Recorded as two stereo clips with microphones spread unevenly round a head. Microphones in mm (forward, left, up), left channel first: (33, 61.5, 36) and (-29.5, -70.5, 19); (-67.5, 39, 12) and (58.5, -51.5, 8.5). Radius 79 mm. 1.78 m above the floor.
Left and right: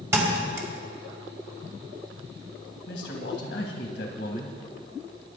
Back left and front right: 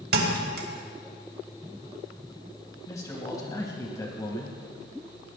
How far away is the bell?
No bell in this recording.